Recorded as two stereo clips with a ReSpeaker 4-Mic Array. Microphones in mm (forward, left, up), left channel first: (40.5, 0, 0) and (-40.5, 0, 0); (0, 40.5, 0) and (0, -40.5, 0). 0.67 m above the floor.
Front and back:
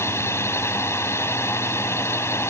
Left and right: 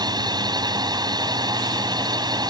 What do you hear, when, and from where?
0.0 s a drone: 55° right